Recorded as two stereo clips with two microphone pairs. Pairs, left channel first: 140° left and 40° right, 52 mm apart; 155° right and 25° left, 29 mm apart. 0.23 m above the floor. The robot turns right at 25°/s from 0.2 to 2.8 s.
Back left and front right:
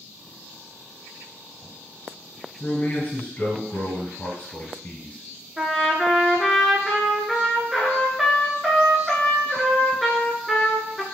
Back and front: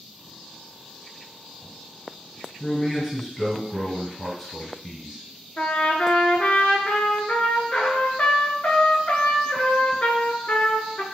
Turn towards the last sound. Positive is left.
turn(degrees=-125)